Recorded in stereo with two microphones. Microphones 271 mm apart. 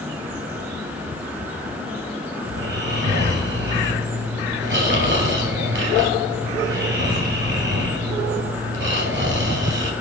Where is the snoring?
40° right (ahead or behind), 3 m.